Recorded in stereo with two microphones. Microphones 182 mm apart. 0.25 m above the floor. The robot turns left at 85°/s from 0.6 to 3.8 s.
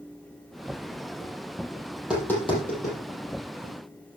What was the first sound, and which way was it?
Tapping, 15° right (ahead or behind).